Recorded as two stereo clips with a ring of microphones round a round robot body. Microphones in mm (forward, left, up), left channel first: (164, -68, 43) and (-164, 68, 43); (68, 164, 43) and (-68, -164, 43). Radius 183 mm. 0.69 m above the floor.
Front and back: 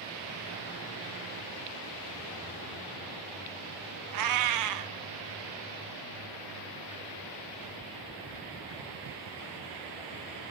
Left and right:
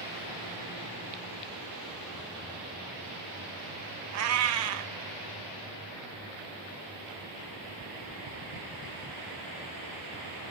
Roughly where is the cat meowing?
Behind.